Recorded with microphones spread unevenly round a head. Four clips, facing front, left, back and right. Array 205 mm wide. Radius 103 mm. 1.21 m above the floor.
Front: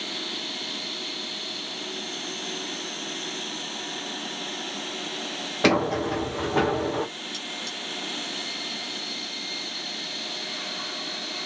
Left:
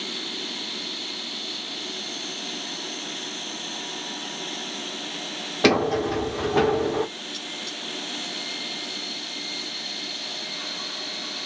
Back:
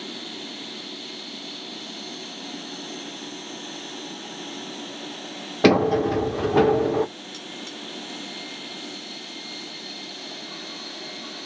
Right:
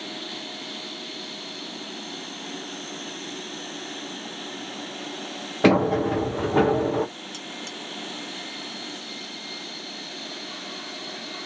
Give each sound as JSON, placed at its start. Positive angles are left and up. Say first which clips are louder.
{"t": 5.6, "sound": "a sliding door", "louder": "right 2 dB, back 5 dB", "azimuth_deg": -170, "distance_m": 0.7}
{"t": 7.3, "sound": "cutlery clinking", "louder": "even, even", "azimuth_deg": -110, "distance_m": 1.1}